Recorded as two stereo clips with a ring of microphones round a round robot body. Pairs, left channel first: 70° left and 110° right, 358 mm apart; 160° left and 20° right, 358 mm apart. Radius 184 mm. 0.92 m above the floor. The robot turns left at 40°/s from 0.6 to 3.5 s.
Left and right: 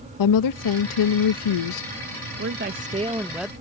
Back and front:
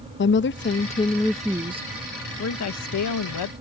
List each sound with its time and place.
0.2 s a woman speaking: 100° left; by 1.9 s 50° left
2.4 s a woman speaking: 160° right; by 3.5 s 155° left